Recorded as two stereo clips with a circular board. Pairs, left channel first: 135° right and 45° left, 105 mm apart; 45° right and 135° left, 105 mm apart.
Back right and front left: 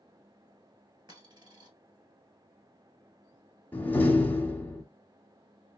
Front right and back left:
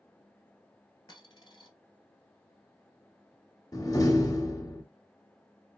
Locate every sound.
1.1 s a dropped coin: straight ahead, 1.5 m
3.7 s a door slam: 70° right, 0.9 m